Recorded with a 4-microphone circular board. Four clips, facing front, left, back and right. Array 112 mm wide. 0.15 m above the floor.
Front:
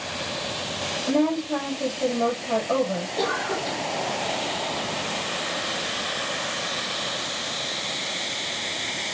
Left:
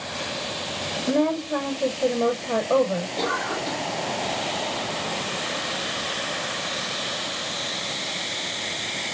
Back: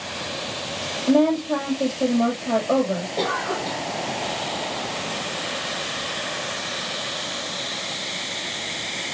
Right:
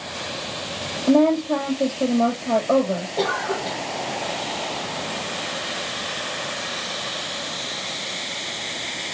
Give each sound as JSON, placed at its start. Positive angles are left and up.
{"t": 1.1, "sound": "a woman speaking", "azimuth_deg": -115, "distance_m": 4.5}
{"t": 3.2, "sound": "a cough", "azimuth_deg": -130, "distance_m": 4.0}